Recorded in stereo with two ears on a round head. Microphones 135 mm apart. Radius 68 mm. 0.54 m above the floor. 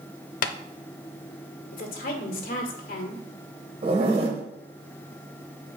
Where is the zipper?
40° right (ahead or behind), 1.6 m.